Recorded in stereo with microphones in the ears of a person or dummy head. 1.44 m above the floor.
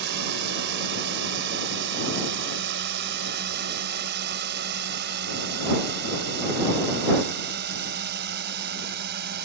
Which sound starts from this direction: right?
A drone, at 0.0 s.